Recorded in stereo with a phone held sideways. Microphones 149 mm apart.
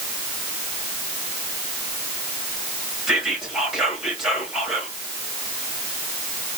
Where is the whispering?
Centre (ahead or behind), 1.9 m.